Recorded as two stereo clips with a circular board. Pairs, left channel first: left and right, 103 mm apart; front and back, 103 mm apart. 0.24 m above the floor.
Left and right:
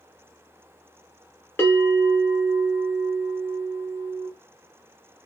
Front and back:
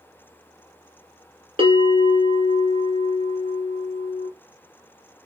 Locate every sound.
1.6 s a bell: 155° left, 1.4 m